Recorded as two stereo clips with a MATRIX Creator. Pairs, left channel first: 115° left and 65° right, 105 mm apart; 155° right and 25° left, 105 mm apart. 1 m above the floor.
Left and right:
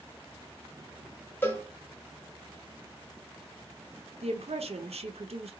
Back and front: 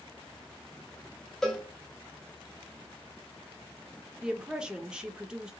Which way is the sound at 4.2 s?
60° right.